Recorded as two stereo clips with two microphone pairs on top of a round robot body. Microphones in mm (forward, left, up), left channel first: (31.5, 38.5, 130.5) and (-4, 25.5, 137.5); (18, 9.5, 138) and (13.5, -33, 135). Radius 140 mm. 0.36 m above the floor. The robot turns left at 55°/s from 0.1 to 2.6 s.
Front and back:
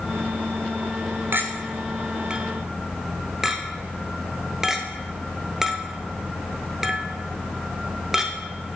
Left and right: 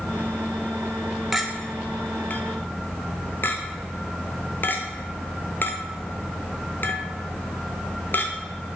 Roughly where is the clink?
Behind.